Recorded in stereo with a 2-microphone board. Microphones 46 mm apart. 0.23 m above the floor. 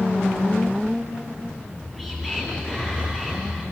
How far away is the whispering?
About 3 m.